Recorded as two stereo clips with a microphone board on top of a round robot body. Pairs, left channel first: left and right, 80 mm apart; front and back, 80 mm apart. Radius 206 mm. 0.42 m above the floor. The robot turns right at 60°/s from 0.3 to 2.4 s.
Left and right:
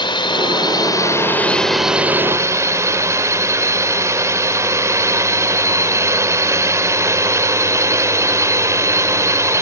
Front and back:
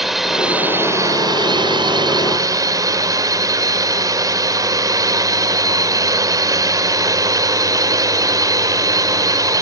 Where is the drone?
95° left; by 9.6 s 140° right.